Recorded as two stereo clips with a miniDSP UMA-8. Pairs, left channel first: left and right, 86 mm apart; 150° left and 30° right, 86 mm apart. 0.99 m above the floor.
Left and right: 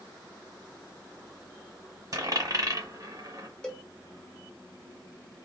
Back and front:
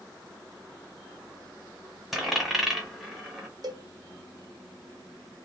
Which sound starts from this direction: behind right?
A dropped coin, at 2.1 s.